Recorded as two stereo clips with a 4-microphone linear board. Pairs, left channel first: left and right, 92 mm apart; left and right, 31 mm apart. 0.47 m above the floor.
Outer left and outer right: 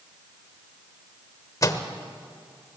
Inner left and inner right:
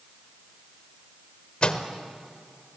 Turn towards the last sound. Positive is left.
turn(degrees=40)  # may be behind; listen again after turning